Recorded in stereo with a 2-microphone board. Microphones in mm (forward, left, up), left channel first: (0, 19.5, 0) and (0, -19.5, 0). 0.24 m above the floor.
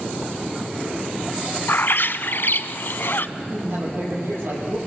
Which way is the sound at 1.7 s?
60° left (ahead or behind).